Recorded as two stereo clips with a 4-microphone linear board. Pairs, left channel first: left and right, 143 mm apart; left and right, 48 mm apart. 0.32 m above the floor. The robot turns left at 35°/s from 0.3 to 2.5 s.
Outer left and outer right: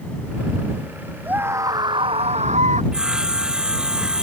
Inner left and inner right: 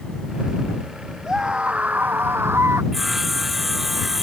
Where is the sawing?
5° right (ahead or behind).